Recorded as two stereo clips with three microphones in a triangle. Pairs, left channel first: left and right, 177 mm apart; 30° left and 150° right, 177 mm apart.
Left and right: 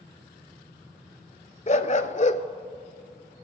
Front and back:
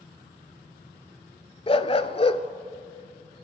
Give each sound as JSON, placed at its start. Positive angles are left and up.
{"t": 1.7, "sound": "a dog barking", "azimuth_deg": 70, "distance_m": 0.5}